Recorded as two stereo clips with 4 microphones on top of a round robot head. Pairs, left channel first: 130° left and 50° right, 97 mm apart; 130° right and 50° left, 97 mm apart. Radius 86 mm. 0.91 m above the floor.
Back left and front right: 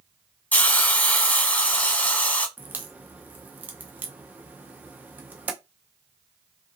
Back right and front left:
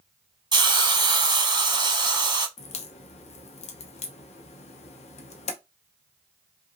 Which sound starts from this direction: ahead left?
A hiss, at 0.5 s.